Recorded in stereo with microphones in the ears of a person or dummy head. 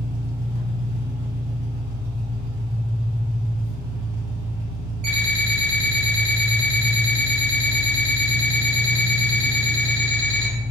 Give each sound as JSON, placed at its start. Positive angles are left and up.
{"t": 0.0, "sound": "an engine running", "side_deg": -10, "distance_m": 1.5}
{"t": 5.0, "sound": "an alarm clock", "side_deg": -40, "distance_m": 0.9}